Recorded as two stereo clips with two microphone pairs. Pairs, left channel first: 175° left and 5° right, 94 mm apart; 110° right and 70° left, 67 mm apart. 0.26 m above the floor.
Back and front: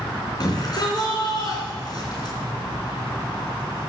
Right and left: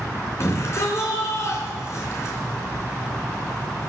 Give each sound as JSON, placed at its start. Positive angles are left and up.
{"t": 0.4, "sound": "a shout", "azimuth_deg": -150, "distance_m": 3.5}